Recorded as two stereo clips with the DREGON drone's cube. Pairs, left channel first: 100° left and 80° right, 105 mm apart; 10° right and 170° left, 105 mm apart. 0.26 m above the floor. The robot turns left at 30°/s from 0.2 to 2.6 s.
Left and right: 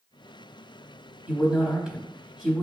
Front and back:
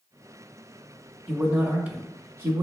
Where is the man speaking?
130° right, 0.9 m; by 2.6 s 170° right, 0.9 m.